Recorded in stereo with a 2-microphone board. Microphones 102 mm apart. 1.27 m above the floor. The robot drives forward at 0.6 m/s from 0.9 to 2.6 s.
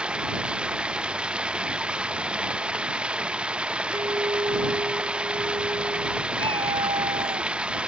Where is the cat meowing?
70° right (ahead or behind).